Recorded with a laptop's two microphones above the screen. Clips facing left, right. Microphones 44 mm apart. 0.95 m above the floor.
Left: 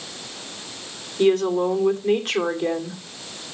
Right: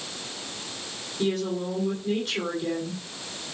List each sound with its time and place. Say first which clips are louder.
1.2 s a woman speaking: left 9 dB; 50° left (ahead or behind), 2.5 m